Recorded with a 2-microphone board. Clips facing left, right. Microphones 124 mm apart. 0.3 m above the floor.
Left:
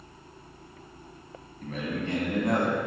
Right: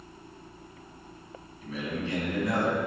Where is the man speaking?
55° left (ahead or behind), 2.5 m.